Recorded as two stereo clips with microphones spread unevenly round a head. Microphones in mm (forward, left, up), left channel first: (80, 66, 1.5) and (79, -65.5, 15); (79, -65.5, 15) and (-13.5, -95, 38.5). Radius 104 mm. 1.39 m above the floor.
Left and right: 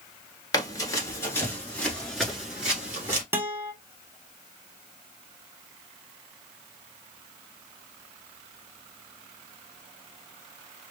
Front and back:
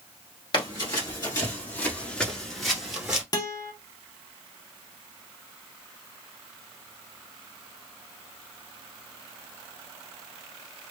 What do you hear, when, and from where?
0.5 s running footsteps: 50° left, 1.5 m; by 3.2 s 135° right, 1.5 m
3.3 s a guitar: 30° right, 0.7 m